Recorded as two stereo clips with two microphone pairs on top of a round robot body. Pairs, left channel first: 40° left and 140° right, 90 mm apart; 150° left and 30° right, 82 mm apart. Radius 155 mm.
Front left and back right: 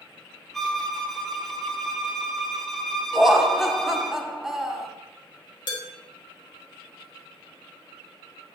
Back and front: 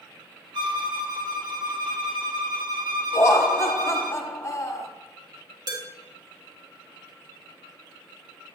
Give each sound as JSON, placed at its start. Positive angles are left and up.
{"t": 0.5, "sound": "a violin", "azimuth_deg": -45, "distance_m": 1.2}
{"t": 3.1, "sound": "laughter", "azimuth_deg": 140, "distance_m": 1.3}
{"t": 5.7, "sound": "dishes clattering", "azimuth_deg": 10, "distance_m": 2.0}